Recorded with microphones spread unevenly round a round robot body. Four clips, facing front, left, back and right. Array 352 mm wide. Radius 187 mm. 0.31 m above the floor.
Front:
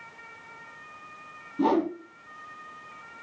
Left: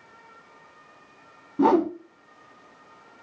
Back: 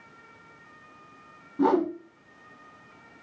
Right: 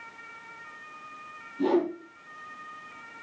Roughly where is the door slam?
I don't hear a door slam.